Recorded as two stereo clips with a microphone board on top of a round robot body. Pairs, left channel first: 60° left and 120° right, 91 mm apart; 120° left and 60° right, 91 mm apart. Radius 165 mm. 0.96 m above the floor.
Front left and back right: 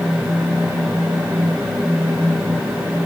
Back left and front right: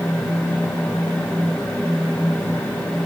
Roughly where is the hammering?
I don't hear hammering.